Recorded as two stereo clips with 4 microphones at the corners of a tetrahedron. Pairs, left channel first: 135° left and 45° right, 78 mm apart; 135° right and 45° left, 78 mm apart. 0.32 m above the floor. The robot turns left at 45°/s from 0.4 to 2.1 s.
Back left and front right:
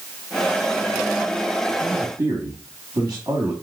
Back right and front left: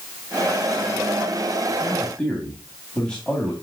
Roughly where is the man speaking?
Ahead right.